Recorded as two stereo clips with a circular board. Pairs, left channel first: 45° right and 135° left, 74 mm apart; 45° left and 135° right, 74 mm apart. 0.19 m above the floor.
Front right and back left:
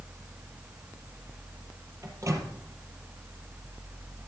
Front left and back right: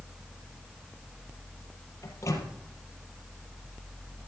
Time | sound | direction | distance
2.0 | a microwave | 90° left | 4 m